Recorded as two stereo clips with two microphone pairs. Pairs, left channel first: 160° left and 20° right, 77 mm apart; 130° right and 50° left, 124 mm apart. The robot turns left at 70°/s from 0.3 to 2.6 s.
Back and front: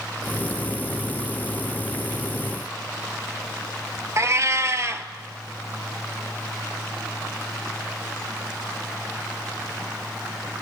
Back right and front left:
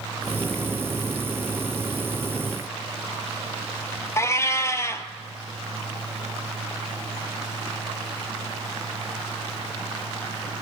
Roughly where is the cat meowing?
Ahead right.